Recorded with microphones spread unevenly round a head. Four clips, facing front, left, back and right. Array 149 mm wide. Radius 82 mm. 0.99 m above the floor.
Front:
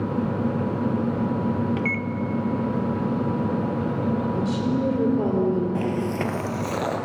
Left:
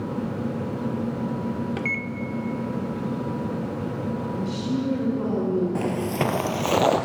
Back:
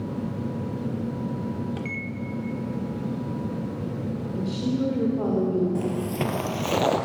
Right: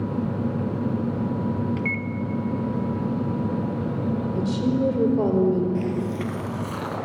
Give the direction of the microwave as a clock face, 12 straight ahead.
10 o'clock.